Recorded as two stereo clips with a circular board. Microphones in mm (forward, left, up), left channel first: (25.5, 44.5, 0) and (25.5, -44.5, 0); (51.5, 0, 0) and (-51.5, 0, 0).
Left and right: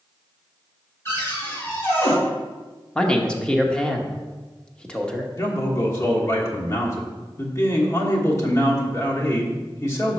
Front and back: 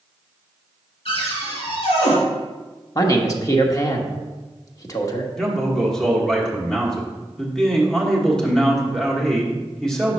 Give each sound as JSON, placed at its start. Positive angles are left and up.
{"t": 1.1, "sound": "a cupboard door", "azimuth_deg": 25, "distance_m": 3.0}
{"t": 3.0, "sound": "a man speaking", "azimuth_deg": 15, "distance_m": 1.0}
{"t": 5.4, "sound": "a man speaking", "azimuth_deg": 80, "distance_m": 1.4}